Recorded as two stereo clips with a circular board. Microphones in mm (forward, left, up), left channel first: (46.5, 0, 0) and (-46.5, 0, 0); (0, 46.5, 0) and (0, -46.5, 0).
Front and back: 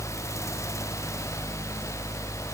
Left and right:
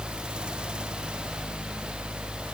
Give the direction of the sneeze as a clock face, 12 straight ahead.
I don't hear a sneeze.